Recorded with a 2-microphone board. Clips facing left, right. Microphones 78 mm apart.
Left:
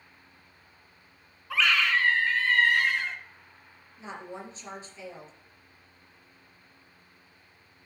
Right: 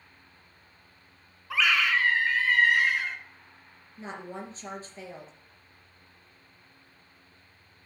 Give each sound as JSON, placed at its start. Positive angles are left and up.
{"t": 1.5, "sound": "a scream", "side_deg": -5, "distance_m": 1.6}
{"t": 4.0, "sound": "a woman speaking", "side_deg": -40, "distance_m": 3.0}